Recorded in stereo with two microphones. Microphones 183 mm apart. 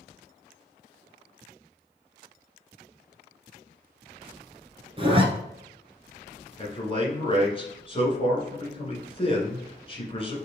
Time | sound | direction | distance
5.0 | a zipper | 30° right (ahead or behind) | 1.2 m
6.6 | a man speaking | 30° left (ahead or behind) | 1.7 m